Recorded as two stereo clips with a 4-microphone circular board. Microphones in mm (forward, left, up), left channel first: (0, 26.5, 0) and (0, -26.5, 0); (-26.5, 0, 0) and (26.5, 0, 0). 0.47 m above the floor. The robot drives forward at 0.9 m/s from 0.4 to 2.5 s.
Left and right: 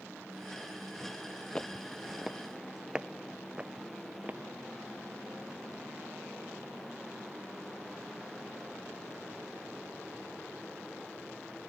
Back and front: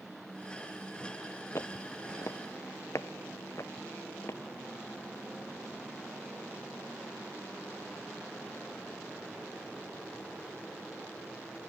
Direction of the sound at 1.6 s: 160° left.